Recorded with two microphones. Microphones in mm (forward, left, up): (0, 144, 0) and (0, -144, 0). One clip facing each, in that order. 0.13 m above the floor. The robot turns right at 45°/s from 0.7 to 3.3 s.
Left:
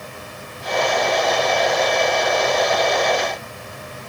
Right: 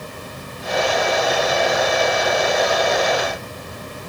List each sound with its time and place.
Only background noise.